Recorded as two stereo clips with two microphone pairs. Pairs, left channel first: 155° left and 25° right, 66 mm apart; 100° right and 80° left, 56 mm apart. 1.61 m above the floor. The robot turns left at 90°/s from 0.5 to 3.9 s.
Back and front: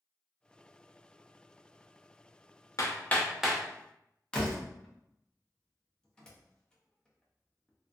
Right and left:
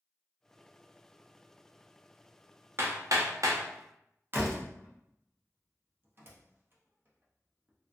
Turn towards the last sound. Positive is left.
turn(degrees=90)